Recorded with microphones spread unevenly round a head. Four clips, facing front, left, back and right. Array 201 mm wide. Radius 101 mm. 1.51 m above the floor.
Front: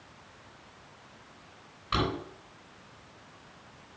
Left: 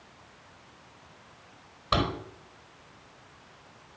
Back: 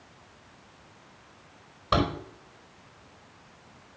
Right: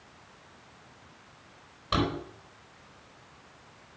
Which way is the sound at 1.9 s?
175° left.